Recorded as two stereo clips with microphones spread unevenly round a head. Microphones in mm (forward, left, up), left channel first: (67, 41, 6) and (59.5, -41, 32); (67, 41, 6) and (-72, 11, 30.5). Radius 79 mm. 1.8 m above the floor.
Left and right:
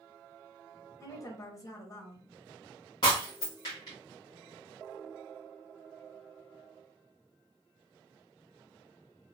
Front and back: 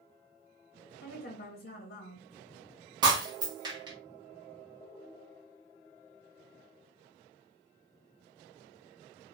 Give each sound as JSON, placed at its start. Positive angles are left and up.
{"t": 1.0, "sound": "a woman speaking", "azimuth_deg": 25, "distance_m": 1.1}
{"t": 3.0, "sound": "breaking glass", "azimuth_deg": 155, "distance_m": 1.4}